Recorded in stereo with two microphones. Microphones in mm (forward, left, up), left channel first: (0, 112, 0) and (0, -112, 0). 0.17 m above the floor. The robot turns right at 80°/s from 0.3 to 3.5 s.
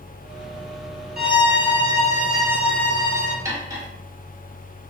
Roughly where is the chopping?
No chopping in this recording.